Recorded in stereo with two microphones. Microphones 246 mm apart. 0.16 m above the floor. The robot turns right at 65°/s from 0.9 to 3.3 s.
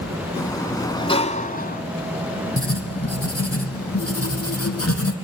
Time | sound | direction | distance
0.4 | a sliding door | 25° left | 0.7 m
2.6 | writing | 60° left | 2 m